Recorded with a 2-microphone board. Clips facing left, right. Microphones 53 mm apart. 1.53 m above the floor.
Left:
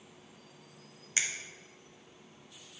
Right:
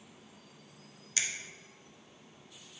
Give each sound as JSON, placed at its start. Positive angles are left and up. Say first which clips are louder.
{"t": 1.2, "sound": "a finger snap", "louder": "left 2 dB", "side_deg": 25, "distance_m": 0.5}